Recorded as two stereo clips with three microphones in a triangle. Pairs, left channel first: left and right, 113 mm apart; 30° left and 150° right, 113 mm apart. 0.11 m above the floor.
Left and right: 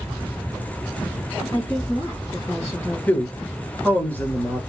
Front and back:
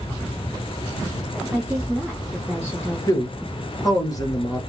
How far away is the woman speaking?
About 2 m.